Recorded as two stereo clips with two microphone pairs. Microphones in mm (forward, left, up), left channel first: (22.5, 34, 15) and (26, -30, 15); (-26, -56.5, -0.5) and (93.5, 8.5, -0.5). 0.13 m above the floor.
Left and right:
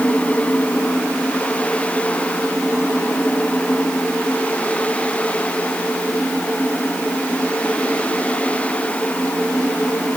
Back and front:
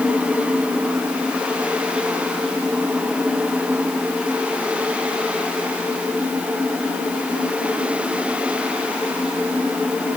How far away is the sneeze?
I don't hear a sneeze.